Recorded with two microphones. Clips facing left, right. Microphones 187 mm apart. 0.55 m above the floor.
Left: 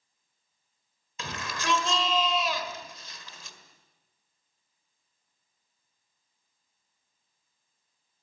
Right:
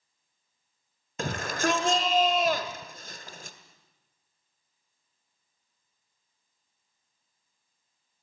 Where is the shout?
55° right (ahead or behind), 1.7 m.